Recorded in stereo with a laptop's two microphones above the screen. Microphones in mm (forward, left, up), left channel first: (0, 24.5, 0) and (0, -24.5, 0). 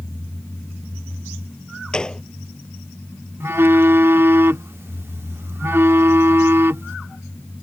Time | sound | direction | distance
1.9 | a gunshot | 15° left (ahead or behind) | ?
3.4 | a phone buzzing | 50° right (ahead or behind) | ?